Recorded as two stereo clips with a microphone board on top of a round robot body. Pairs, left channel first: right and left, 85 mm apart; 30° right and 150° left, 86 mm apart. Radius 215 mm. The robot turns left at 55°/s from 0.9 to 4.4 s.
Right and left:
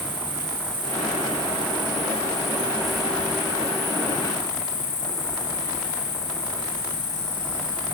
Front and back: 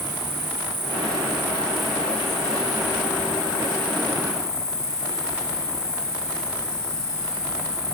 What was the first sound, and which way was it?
An insect, 110° left.